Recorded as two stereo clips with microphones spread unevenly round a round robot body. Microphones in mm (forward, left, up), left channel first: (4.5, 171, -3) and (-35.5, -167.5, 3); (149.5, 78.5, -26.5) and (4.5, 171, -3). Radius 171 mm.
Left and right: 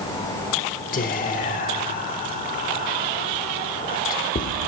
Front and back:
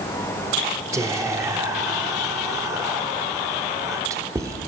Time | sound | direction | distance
0.9 | whispering | 80° left | 0.7 m